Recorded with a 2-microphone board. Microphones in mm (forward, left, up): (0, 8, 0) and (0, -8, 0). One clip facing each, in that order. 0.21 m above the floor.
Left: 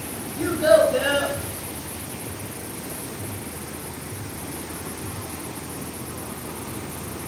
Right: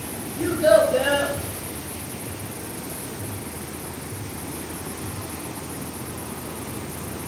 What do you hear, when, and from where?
0.4 s a child speaking: 35° left (ahead or behind), 1.4 m